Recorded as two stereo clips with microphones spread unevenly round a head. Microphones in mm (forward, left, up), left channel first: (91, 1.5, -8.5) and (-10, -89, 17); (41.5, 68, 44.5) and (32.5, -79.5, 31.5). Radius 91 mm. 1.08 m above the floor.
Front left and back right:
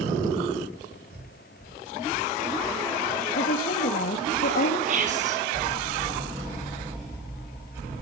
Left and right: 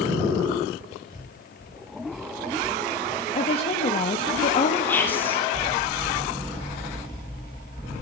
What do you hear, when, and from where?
1.1 s breathing: 160° right, 5.5 m
3.4 s a woman speaking: 40° left, 1.9 m
4.9 s whispering: 165° left, 3 m